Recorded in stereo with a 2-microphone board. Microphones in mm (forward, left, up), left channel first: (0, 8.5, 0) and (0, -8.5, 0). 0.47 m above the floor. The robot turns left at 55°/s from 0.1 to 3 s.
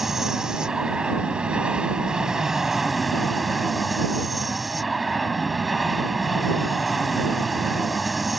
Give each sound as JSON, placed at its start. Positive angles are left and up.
{"t": 0.0, "sound": "an aircraft", "azimuth_deg": -10}